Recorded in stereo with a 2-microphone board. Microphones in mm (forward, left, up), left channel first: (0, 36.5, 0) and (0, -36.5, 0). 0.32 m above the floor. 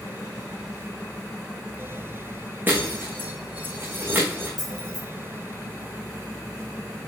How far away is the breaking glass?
About 3.5 m.